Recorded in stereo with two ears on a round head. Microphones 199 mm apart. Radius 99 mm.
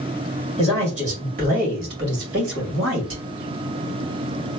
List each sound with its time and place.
0.6 s a man speaking: 25° right (ahead or behind), 1.8 m; by 3.2 s 65° right (ahead or behind), 1.9 m